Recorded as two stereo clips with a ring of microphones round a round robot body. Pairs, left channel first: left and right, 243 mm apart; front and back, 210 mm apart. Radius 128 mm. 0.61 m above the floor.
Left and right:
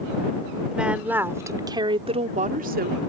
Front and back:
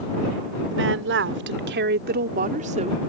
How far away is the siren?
I don't hear a siren.